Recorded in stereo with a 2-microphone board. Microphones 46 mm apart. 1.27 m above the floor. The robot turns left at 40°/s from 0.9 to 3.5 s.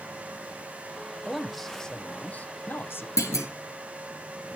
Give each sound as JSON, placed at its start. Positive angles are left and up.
{"t": 1.2, "sound": "a man speaking", "azimuth_deg": -170, "distance_m": 0.9}
{"t": 3.2, "sound": "a clunk", "side_deg": 85, "distance_m": 1.6}